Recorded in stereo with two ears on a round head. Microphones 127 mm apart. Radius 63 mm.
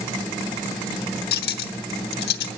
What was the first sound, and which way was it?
Cutlery clinking, 75° left (ahead or behind).